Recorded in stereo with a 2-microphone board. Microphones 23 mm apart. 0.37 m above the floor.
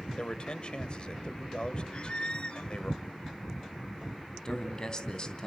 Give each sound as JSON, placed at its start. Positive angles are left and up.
{"t": 0.2, "sound": "a man speaking", "side_deg": 40, "distance_m": 1.7}
{"t": 1.9, "sound": "a squeak", "side_deg": 50, "distance_m": 0.6}
{"t": 4.5, "sound": "a man speaking", "side_deg": 30, "distance_m": 3.0}